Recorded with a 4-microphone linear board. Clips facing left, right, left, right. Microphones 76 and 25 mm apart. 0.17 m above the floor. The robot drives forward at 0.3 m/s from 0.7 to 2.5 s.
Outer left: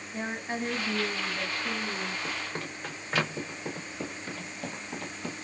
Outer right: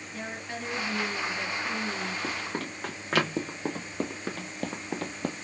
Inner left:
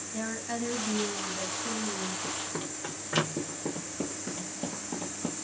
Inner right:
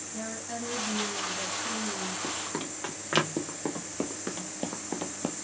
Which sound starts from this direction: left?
A woman speaking, at 0.1 s.